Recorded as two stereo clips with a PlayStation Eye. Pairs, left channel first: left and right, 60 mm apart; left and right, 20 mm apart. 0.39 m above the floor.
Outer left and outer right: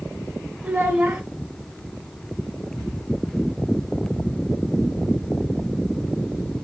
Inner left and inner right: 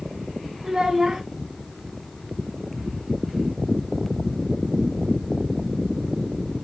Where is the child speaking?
25° right (ahead or behind), 0.8 m.